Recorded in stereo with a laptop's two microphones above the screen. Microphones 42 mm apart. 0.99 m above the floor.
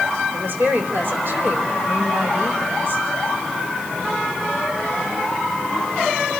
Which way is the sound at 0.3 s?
55° right (ahead or behind).